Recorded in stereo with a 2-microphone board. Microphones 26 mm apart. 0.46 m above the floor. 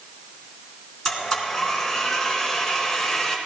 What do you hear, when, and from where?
1.1 s a blender: 10° left (ahead or behind), 3.5 m